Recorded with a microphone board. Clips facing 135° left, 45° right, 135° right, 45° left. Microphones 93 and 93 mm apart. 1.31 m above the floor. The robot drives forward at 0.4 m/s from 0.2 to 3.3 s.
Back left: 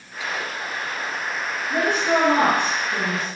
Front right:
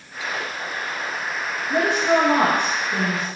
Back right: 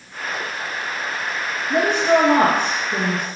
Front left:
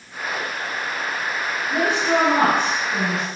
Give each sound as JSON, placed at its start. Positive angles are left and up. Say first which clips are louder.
{"t": 1.7, "sound": "a woman speaking", "louder": "front right 2 dB, back right 4 dB", "azimuth_deg": -110, "distance_m": 2.5}